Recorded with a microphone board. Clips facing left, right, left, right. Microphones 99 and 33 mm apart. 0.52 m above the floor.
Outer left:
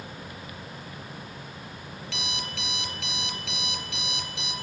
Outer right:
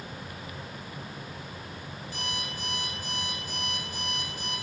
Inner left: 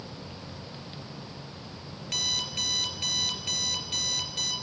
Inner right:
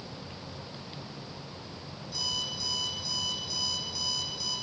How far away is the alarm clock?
About 3.5 m.